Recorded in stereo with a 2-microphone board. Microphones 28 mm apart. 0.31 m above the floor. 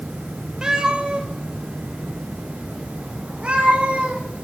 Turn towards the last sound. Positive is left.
turn(degrees=-40)  # may be behind; listen again after turning